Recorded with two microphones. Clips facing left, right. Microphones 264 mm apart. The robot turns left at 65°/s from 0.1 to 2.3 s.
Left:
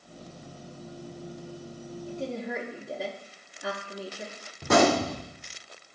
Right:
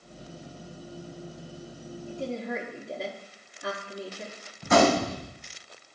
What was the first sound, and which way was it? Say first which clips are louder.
A woman speaking: right 1 dB; 10° right (ahead or behind).